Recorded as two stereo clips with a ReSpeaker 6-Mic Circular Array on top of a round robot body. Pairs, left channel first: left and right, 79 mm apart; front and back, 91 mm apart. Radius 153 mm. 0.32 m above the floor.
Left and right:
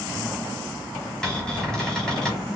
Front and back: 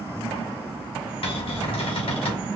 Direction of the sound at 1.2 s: 10° left.